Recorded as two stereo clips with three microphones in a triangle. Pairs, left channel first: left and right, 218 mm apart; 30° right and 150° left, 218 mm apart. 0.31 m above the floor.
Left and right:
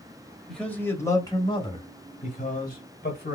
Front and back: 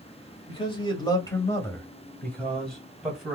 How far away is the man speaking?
About 1.5 m.